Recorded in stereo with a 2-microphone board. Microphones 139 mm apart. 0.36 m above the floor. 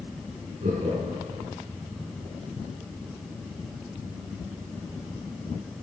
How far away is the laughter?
About 4 m.